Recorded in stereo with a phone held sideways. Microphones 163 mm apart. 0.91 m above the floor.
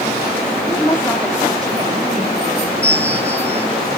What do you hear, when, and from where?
0.7 s a woman speaking: 25° left (ahead or behind), 2.0 m; by 2.7 s 70° right (ahead or behind), 2.5 m
2.8 s a bell: 15° right (ahead or behind), 1.7 m